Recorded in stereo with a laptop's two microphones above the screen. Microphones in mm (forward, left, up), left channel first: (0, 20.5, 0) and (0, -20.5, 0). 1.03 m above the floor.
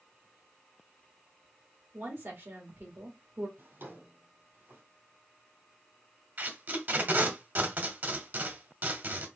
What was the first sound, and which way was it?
A woman speaking, 80° right.